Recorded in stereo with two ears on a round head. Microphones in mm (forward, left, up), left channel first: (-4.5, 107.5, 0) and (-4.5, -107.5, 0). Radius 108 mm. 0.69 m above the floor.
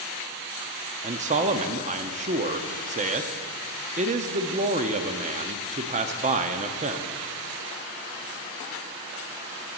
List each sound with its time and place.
1.0 s a man speaking: 30° right (ahead or behind), 0.7 m